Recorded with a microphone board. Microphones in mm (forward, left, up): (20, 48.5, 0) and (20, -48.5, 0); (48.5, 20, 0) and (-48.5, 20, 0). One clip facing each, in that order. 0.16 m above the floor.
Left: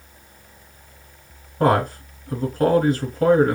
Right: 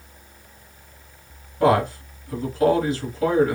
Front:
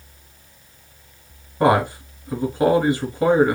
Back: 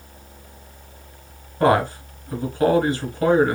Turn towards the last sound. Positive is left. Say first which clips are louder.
# even, front 1 dB
turn(degrees=70)